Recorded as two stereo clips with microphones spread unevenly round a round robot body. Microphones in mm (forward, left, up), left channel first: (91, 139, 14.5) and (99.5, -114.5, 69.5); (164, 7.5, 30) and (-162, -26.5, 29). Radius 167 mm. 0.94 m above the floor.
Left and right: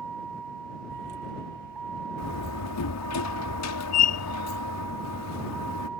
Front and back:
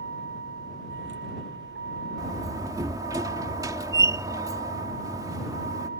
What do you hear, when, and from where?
0.0 s a vehicle: 120° right; by 6.0 s 115° right
2.2 s a door slam: 105° left